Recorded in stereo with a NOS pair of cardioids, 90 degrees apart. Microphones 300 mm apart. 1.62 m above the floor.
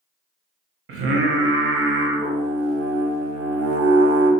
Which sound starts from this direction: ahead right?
Singing, at 0.9 s.